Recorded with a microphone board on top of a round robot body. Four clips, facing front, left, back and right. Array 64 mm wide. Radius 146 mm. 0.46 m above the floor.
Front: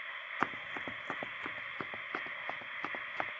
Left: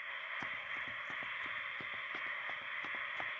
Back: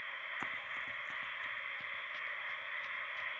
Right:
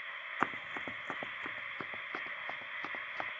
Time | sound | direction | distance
0.4 | running footsteps | 55° right | ?